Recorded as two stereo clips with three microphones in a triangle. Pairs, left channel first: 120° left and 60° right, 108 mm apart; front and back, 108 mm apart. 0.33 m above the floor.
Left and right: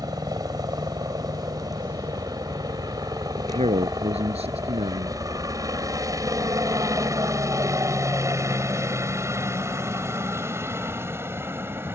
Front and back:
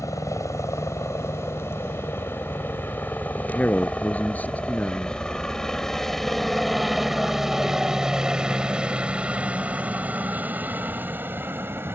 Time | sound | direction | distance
0.0 | a helicopter | 40° right | ?
3.4 | a man speaking | 75° right | ?